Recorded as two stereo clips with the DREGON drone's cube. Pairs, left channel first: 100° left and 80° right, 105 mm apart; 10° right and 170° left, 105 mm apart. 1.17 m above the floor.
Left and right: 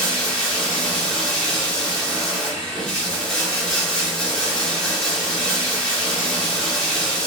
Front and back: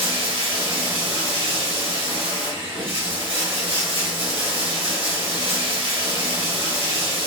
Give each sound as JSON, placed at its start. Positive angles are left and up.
{"t": 0.0, "sound": "running water", "azimuth_deg": -175, "distance_m": 1.2}